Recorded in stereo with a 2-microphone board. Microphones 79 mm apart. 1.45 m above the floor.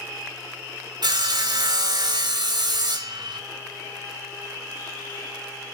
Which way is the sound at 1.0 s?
60° right (ahead or behind).